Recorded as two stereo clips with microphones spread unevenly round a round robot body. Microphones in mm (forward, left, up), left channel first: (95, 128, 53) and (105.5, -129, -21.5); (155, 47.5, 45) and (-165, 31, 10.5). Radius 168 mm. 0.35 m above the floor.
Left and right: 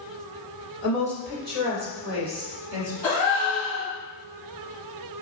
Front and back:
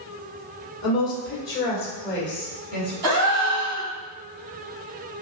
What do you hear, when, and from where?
0.8 s a woman speaking: 55° right, 1.5 m; by 2.9 s 90° right, 2.5 m
3.0 s a gasp: straight behind, 1.8 m